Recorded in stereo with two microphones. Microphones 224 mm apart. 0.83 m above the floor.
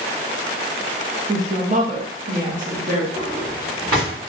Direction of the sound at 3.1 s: 75° right (ahead or behind).